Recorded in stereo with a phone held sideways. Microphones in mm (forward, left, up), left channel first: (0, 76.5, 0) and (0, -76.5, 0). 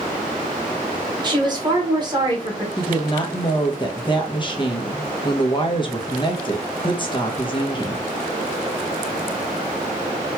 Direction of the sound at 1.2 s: 30° right (ahead or behind).